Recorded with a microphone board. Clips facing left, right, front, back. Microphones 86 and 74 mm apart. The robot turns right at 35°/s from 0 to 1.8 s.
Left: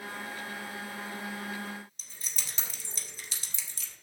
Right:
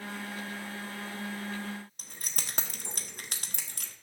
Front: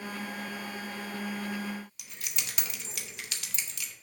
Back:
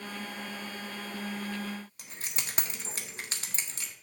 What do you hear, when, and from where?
2.0 s keys jangling: 125° right, 1.1 m